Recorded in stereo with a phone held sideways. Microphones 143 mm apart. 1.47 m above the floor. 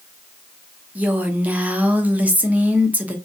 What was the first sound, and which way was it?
A woman speaking, 10° right (ahead or behind).